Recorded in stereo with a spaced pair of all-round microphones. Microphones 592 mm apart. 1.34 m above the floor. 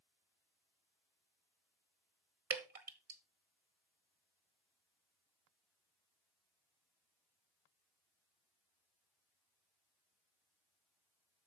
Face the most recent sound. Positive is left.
turn(degrees=-75)  # may be behind; listen again after turning